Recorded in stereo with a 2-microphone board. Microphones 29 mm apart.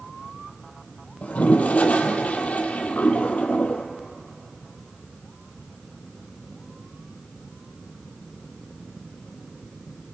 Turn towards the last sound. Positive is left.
turn(degrees=55)  # may be behind; listen again after turning